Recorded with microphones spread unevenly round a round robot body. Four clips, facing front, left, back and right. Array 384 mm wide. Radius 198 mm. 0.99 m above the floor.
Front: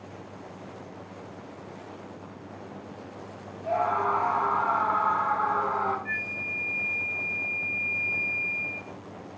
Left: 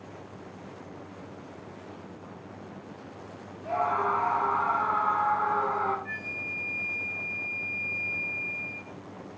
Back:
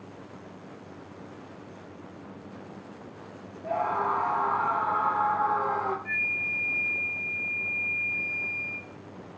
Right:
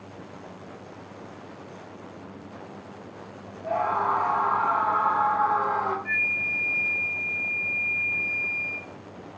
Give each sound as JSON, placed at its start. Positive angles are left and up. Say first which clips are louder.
{"t": 3.6, "sound": "a scream", "louder": "right 2 dB, front 2 dB", "azimuth_deg": -175, "distance_m": 1.5}
{"t": 6.0, "sound": "a flute", "louder": "right 7 dB, back 1 dB", "azimuth_deg": -35, "distance_m": 1.1}